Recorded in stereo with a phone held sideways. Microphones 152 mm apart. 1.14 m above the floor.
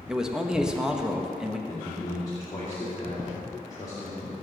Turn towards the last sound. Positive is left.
turn(degrees=25)  # may be behind; listen again after turning